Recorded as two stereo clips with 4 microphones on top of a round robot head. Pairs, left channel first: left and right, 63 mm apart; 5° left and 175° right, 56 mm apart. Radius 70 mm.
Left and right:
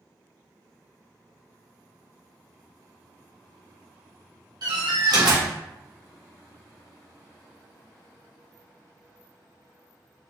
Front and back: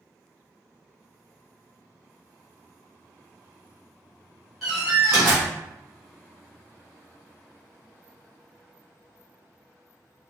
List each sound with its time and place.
4.6 s a door slam: 85° right, 1.6 m